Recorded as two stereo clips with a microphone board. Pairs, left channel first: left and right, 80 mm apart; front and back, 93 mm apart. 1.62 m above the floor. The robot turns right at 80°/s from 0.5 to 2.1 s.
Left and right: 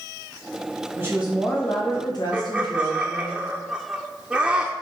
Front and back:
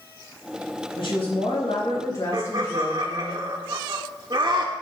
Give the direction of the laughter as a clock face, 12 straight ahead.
6 o'clock.